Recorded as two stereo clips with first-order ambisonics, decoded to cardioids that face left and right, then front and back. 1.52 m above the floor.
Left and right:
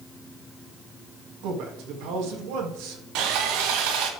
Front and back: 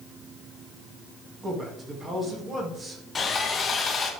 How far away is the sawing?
About 1.5 m.